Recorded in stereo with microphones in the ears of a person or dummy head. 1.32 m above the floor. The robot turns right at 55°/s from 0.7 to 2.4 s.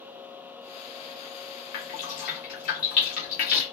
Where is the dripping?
50° left (ahead or behind), 1.2 m; by 3.6 s 35° left (ahead or behind), 1.2 m.